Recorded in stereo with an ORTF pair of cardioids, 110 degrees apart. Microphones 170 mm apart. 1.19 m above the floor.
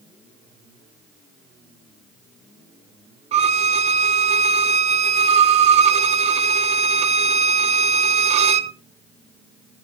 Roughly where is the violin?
Ahead right.